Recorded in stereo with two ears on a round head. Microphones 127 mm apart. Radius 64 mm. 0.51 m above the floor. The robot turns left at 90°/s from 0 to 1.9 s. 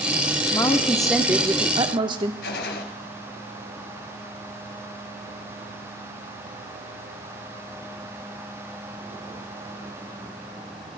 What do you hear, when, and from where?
0.5 s a woman speaking: 50° left, 0.7 m; by 2.3 s 75° right, 0.7 m
2.4 s a gunshot: 80° left, 1.7 m